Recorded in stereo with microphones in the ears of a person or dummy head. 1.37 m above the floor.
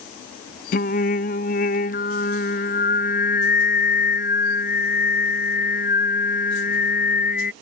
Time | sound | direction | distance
0.7 | singing | 45° left (ahead or behind) | ?